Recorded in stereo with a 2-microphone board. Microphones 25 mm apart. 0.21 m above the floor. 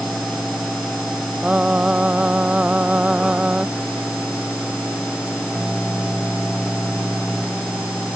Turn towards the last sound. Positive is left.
turn(degrees=-50)  # may be behind; listen again after turning